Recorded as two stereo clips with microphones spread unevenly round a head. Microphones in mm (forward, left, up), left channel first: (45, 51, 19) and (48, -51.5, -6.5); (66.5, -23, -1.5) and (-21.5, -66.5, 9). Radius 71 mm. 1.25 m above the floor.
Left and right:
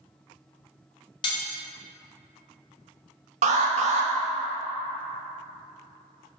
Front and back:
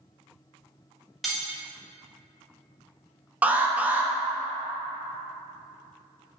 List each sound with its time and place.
1.2 s cutlery clinking: 120° left, 0.6 m
3.4 s an alarm: 85° right, 0.7 m